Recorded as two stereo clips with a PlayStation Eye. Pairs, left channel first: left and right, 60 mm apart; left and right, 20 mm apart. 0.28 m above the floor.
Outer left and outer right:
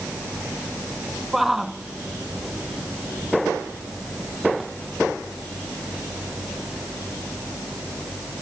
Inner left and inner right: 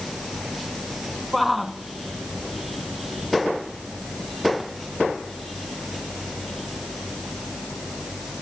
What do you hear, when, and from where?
1.3 s a shout: 5° right (ahead or behind)